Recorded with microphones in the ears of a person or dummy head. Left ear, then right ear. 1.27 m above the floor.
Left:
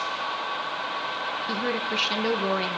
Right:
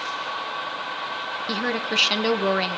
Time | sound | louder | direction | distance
1.5 | a woman speaking | right 4 dB | 20° right (ahead or behind) | 0.8 m